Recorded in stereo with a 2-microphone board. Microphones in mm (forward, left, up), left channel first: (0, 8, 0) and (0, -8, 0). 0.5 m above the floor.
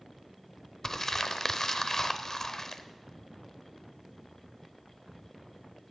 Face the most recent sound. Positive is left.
turn(degrees=30)  # may be behind; listen again after turning